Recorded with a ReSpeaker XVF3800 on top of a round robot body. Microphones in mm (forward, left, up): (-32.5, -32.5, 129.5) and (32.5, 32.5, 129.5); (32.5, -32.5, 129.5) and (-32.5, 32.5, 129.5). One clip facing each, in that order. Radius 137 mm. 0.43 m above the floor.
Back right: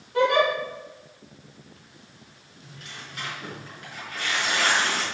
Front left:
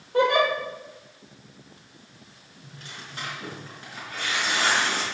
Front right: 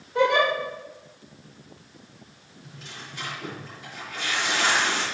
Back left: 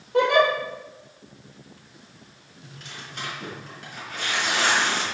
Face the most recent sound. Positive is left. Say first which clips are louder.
# even, back left 1 dB
turn(degrees=105)